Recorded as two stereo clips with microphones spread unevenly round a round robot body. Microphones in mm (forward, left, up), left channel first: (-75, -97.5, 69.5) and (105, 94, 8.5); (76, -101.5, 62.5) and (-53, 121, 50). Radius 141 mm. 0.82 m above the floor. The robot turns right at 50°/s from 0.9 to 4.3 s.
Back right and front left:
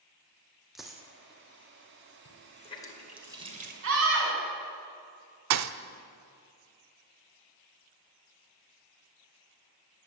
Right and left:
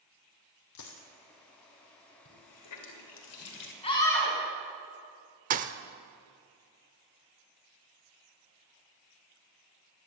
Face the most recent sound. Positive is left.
turn(degrees=70)